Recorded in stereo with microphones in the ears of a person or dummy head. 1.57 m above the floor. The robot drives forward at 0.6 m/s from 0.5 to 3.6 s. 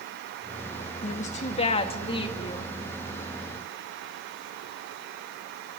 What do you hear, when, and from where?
1.0 s a woman speaking: 40° left (ahead or behind), 1.9 m; by 2.8 s 30° left (ahead or behind), 2.5 m